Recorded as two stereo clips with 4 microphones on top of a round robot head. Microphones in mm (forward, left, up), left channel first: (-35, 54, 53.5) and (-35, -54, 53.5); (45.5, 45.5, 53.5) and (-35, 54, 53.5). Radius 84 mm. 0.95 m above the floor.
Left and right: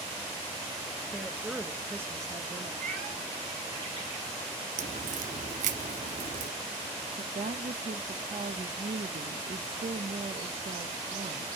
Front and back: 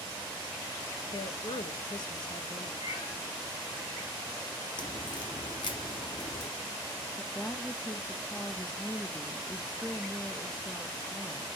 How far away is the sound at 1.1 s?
About 1.1 m.